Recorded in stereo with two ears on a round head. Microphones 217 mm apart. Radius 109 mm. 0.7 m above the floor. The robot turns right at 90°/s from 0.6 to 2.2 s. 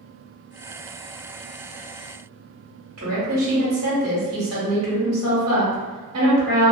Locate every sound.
3.0 s a woman speaking: 65° right (ahead or behind), 1.8 m